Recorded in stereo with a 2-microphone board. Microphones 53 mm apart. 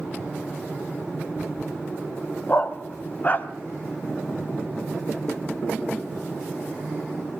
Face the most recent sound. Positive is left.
turn(degrees=35)  # may be behind; listen again after turning